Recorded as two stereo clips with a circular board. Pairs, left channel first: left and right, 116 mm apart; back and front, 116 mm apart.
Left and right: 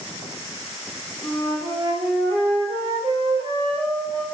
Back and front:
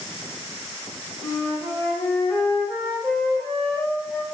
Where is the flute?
110° right, 1.9 m.